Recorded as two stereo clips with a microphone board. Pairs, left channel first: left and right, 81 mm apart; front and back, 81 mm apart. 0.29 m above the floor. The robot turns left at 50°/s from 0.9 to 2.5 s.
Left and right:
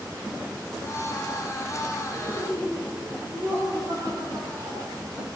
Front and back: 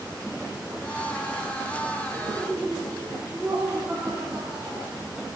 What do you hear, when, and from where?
2.1 s laughter: 100° right, 5 m; by 5.0 s 120° right, 5 m